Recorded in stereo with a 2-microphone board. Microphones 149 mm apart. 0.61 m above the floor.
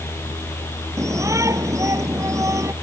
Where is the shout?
20° right (ahead or behind).